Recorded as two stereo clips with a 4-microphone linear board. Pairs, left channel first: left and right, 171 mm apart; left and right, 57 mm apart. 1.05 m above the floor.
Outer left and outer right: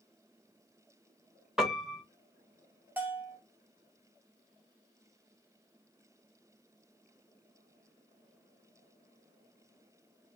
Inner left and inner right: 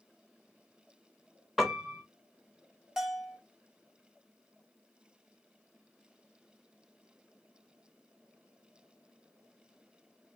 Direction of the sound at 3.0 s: 10° right (ahead or behind).